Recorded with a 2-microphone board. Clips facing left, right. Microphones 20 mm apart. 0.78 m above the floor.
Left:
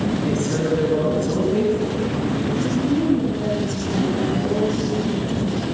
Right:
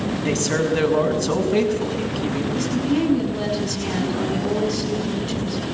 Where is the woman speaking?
70° right (ahead or behind), 7 m.